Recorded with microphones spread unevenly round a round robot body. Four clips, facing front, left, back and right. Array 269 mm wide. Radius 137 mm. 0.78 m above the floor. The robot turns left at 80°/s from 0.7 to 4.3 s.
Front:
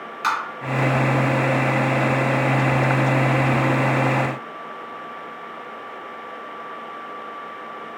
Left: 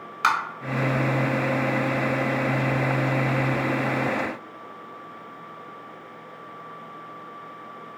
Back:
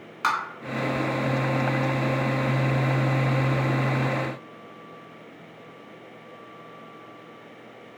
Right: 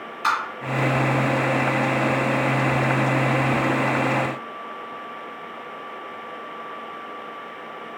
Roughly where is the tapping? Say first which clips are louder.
Even, front 2 dB; left.